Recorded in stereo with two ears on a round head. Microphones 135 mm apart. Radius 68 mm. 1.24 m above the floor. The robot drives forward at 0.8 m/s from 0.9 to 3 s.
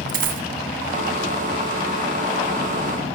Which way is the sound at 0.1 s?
55° right (ahead or behind).